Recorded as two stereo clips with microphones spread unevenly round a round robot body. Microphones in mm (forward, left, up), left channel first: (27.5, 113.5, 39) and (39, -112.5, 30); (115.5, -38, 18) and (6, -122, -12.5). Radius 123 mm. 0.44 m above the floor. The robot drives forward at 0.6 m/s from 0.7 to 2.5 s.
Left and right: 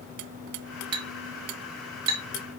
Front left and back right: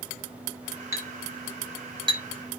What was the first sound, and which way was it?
A clink, 70° right.